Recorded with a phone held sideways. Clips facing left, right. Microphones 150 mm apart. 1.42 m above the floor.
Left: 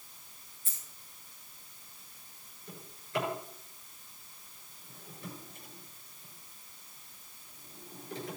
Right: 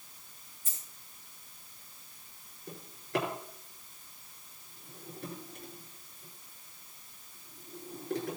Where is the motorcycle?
I don't hear a motorcycle.